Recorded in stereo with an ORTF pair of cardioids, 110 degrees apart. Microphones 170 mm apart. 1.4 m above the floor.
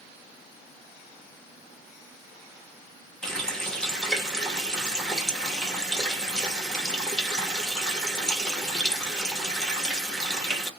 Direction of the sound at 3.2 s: 5° left.